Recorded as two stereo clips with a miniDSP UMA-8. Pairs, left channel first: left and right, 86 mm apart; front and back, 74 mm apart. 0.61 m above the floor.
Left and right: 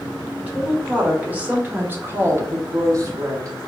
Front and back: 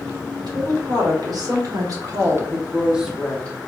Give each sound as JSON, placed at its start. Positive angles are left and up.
{"t": 0.4, "sound": "a woman speaking", "azimuth_deg": -165, "distance_m": 2.0}